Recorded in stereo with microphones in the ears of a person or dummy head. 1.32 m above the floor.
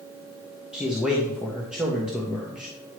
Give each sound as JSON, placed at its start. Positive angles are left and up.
{"t": 0.7, "sound": "a man speaking", "side_deg": -5, "distance_m": 1.1}